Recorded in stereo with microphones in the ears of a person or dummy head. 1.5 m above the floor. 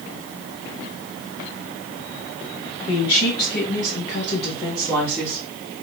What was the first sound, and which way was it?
A woman speaking, 75° left (ahead or behind).